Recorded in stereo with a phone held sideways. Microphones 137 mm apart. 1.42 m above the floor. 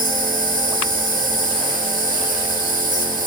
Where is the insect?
80° right, 6 m.